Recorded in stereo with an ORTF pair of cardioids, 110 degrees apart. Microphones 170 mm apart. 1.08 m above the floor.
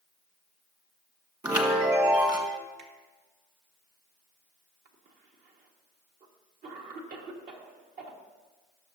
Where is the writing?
I don't hear writing.